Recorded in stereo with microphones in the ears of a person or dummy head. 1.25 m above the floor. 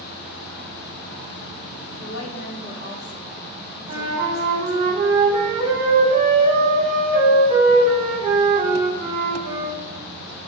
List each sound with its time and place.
2.0 s a woman speaking: 75° left (ahead or behind), 1.0 m; by 4.9 s 15° left (ahead or behind), 2 m
3.9 s a flute: 25° right (ahead or behind), 1.9 m